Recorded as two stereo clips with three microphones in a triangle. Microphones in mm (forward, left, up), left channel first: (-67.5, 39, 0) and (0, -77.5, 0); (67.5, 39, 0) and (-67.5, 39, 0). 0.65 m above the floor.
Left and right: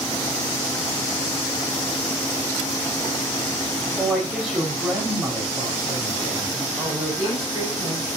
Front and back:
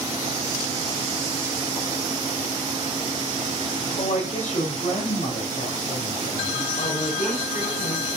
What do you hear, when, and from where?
4.0 s a woman speaking: 30° left, 3 m; by 6.7 s straight ahead, 3 m
6.8 s a woman speaking: 5° left, 5.5 m